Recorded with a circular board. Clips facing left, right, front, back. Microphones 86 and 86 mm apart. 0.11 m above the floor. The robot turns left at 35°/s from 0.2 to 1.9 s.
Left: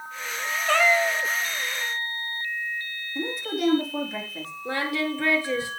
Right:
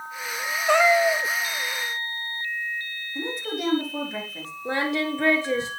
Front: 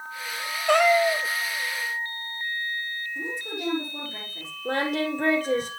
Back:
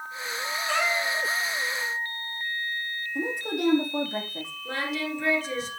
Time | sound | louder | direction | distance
0.7 | a cat meowing | right 3 dB, front 9 dB | 15° right | 0.7 m
3.1 | a woman speaking | left 2 dB, back 8 dB | straight behind | 5 m
4.7 | singing | right 2 dB, front 6 dB | 25° right | 2.5 m